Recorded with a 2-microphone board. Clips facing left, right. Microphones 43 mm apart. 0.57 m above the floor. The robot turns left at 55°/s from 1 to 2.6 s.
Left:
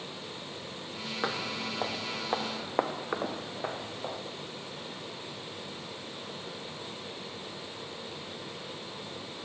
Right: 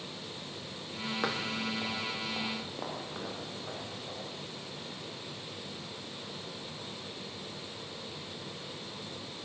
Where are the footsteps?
5° left (ahead or behind), 1.3 m; by 4.2 s 70° left (ahead or behind), 4.5 m.